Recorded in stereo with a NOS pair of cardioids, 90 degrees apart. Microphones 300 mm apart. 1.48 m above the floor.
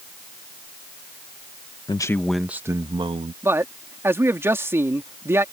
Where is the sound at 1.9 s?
15° left; by 3.3 s 20° right.